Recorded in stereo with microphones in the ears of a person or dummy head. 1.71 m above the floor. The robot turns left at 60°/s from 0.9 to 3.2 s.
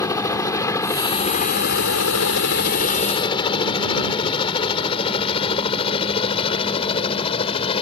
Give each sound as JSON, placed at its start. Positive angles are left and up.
{"t": 0.0, "sound": "a helicopter", "side_deg": 15}